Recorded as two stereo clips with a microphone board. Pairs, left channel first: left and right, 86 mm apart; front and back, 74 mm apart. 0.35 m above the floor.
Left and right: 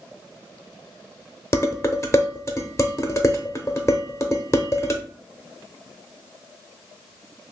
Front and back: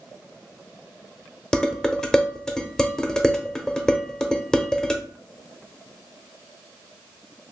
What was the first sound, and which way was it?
Dishes clattering, 75° left.